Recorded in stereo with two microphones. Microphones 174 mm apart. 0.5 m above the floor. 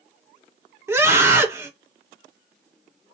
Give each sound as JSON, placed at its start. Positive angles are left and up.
{"t": 0.9, "sound": "a scream", "side_deg": -15, "distance_m": 1.4}